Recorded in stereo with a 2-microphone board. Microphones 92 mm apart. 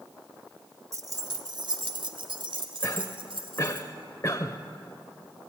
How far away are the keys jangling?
About 1.0 m.